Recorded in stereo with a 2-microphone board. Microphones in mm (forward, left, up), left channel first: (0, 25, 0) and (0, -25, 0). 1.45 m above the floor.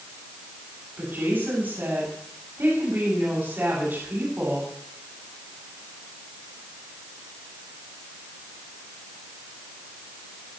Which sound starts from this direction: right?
A woman speaking, at 1.0 s.